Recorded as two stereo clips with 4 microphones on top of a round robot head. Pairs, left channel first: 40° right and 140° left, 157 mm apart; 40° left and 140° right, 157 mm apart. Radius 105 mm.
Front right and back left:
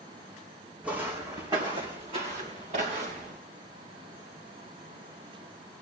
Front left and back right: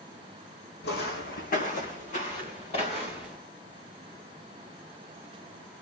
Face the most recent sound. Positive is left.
turn(degrees=95)